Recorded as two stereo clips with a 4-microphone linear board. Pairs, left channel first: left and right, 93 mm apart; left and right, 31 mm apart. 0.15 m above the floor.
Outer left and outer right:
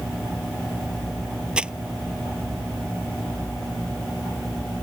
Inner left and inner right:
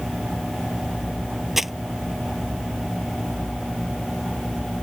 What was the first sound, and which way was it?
Crumpling, 10° right (ahead or behind).